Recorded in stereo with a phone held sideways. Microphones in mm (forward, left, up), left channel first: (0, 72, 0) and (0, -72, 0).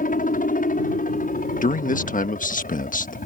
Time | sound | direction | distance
0.0 | a helicopter | 65° left (ahead or behind) | ?
1.6 | a man speaking | 60° left (ahead or behind) | ?